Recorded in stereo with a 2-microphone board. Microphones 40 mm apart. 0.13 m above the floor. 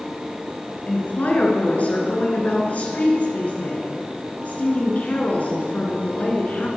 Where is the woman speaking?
40° left (ahead or behind), 1.5 m.